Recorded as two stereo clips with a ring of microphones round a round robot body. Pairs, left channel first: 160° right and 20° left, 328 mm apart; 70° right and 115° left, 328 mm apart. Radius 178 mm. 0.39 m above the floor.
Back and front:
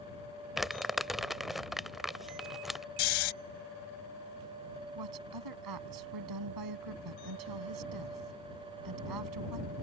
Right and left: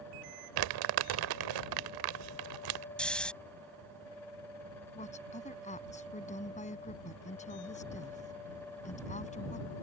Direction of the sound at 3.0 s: 155° right.